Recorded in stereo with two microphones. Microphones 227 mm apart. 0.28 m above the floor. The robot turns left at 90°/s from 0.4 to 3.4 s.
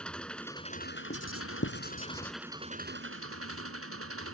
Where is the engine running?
175° left; by 4.3 s 95° right.